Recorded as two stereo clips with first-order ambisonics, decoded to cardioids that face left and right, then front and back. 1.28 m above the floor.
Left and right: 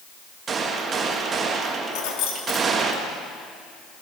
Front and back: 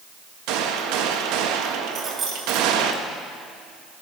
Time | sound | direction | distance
0.5 | a gunshot | 155° right | 1.4 m
1.9 | keys jangling | 115° left | 1.9 m